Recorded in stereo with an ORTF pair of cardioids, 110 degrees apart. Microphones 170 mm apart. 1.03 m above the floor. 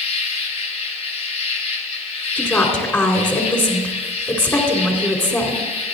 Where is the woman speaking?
10° left, 2.5 m.